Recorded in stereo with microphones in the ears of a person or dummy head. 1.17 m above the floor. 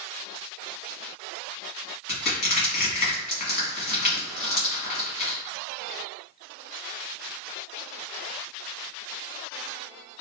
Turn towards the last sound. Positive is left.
turn(degrees=50)  # may be behind; listen again after turning